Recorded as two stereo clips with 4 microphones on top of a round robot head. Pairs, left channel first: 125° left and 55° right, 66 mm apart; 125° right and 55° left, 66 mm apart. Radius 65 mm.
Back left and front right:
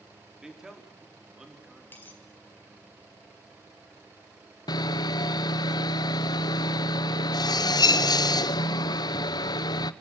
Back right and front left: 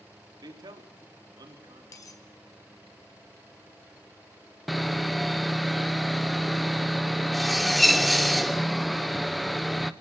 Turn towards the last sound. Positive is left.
turn(degrees=145)